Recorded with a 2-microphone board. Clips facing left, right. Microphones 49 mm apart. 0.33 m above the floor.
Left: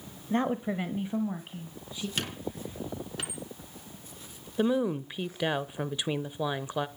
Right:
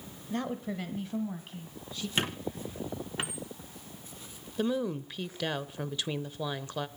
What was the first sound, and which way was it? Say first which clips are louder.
A woman speaking: left 6 dB; 30° left (ahead or behind).